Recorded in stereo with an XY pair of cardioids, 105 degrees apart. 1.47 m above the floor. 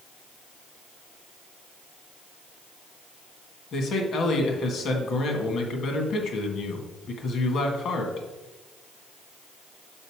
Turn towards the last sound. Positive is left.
turn(degrees=60)